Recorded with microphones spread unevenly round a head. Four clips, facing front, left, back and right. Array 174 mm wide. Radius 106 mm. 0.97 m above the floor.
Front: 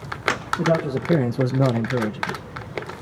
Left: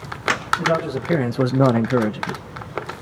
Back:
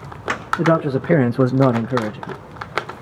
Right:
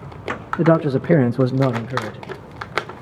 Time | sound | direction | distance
0.6 | a man speaking | 75° right | 1.3 m